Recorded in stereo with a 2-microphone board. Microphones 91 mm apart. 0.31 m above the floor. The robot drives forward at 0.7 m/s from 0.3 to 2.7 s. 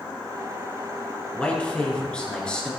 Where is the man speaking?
15° left (ahead or behind), 3.5 m; by 2.7 s 10° left (ahead or behind), 4.5 m.